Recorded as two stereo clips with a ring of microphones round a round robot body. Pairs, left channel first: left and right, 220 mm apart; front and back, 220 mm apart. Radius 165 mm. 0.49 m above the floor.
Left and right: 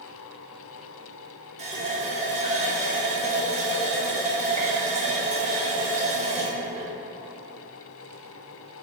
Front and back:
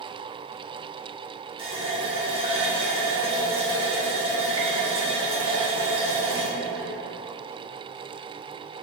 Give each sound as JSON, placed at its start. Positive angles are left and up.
{"t": 1.6, "sound": "a running tap", "azimuth_deg": -130, "distance_m": 0.6}